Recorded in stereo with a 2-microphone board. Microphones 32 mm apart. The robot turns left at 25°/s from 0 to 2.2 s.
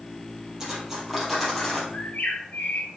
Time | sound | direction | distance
0.6 | cutlery clinking | 160° right | 3.5 m
1.9 | a bird | 70° left (ahead or behind) | 1.4 m